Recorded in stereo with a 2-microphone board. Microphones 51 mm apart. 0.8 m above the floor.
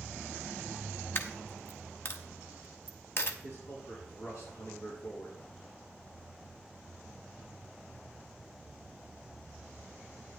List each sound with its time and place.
1.1 s a dropped coin: 50° left (ahead or behind), 0.9 m
3.4 s a man speaking: 70° left (ahead or behind), 6.5 m